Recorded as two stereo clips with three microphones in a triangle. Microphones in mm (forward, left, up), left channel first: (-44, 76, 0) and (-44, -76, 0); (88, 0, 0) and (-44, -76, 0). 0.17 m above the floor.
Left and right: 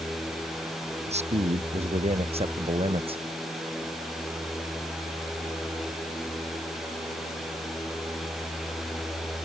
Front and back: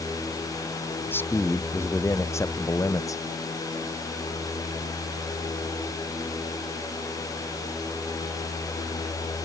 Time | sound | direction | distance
1.1 | a man speaking | 45° right | ?